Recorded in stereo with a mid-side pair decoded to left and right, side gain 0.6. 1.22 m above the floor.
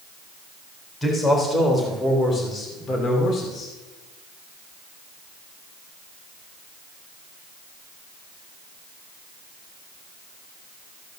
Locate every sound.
1.0 s a man speaking: 20° left, 4 m; by 3.7 s 45° left, 3 m